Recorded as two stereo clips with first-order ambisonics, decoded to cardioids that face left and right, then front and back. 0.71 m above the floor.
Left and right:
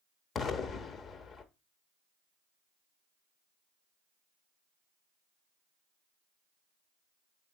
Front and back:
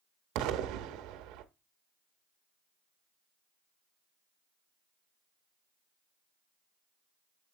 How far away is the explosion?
About 0.8 m.